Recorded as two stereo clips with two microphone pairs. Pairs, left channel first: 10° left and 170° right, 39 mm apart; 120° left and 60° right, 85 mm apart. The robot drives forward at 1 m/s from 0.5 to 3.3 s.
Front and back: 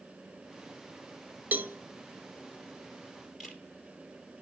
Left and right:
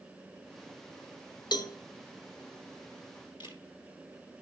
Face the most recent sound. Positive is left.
turn(degrees=105)